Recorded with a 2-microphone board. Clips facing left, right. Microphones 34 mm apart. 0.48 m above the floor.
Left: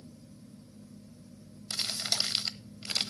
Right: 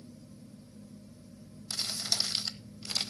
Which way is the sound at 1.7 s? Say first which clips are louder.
Left 1 dB; 30° left (ahead or behind).